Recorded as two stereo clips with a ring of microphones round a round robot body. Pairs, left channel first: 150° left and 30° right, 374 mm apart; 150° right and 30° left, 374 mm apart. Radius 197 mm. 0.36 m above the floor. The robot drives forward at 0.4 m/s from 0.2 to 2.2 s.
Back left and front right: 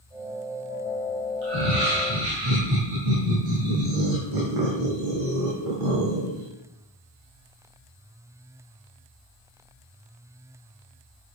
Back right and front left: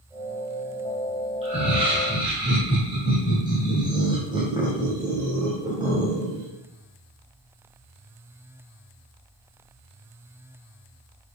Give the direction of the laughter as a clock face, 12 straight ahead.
1 o'clock.